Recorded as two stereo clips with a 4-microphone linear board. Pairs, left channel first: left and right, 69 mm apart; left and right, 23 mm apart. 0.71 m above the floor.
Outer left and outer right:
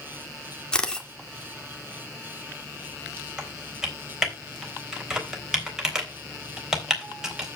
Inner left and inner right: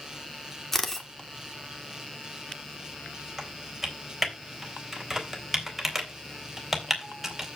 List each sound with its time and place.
0.7 s a camera shutter: 10° left (ahead or behind), 2 m
3.4 s typing on a keyboard: 10° right (ahead or behind), 3.5 m